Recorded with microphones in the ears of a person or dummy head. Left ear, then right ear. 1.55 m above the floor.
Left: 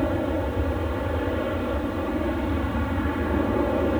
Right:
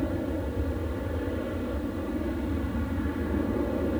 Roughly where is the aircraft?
Left.